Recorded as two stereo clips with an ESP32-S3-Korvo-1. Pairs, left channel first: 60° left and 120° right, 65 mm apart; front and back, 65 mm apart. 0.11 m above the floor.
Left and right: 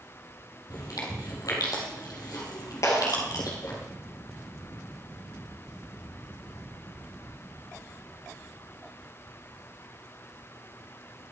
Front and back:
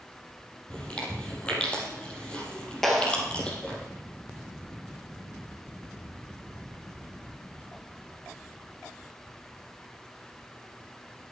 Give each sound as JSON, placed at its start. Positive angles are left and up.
{"t": 0.7, "sound": "chewing", "azimuth_deg": 70, "distance_m": 3.5}
{"t": 2.8, "sound": "a clap", "azimuth_deg": 85, "distance_m": 2.5}